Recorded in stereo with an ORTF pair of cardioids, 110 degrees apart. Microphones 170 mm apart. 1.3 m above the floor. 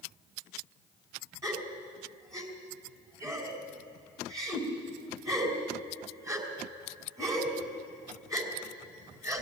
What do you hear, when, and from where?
1.4 s a gasp: 20° right, 4 m